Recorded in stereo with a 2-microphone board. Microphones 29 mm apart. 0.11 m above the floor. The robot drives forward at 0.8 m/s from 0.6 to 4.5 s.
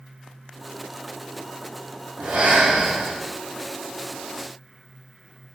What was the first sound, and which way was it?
Breathing, 80° right.